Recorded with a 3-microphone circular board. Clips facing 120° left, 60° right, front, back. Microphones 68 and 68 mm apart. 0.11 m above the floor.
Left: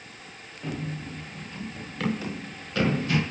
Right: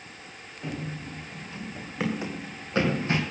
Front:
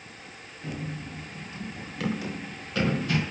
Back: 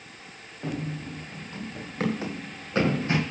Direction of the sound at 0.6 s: 145° right.